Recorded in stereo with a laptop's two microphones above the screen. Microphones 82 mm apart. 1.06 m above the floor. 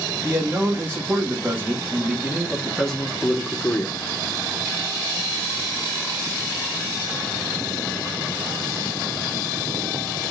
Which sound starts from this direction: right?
A man speaking, at 0.2 s.